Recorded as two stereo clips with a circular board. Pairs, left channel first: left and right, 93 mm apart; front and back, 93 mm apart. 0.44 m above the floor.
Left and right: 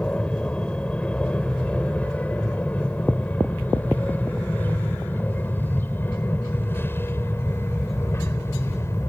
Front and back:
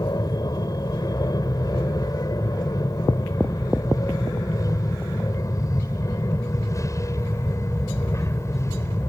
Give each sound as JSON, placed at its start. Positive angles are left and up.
{"t": 0.0, "sound": "an aircraft", "azimuth_deg": 15}